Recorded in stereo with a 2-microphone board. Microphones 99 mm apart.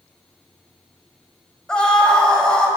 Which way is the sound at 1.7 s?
10° left (ahead or behind).